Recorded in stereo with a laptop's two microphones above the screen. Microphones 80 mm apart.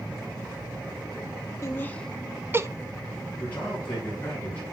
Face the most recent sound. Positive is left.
turn(degrees=20)  # may be behind; listen again after turning